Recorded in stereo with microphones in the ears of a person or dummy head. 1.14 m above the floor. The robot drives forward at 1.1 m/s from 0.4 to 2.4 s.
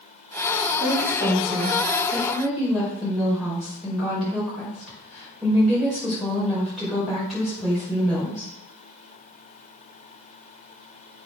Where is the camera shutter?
I don't hear a camera shutter.